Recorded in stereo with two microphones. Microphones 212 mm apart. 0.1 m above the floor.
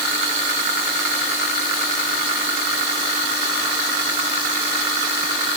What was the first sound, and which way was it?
Only background noise.